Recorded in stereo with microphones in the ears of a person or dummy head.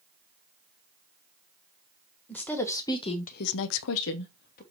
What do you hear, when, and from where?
2.3 s a woman speaking: 5° left (ahead or behind), 1.7 m; by 4.6 s 45° left (ahead or behind), 1.3 m